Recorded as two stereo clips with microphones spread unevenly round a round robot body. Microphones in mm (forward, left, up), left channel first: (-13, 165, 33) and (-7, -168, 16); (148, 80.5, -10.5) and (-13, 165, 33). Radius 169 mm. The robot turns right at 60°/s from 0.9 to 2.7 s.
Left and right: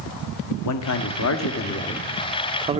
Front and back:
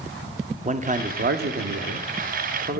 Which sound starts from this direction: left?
A man speaking, at 0.7 s.